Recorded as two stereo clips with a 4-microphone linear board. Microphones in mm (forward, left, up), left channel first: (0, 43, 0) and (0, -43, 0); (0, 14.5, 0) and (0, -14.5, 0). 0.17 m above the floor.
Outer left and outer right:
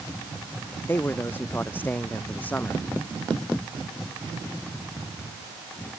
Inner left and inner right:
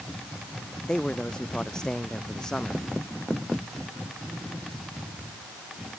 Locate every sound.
0.9 s a man speaking: 25° left (ahead or behind); by 2.9 s 20° left (ahead or behind)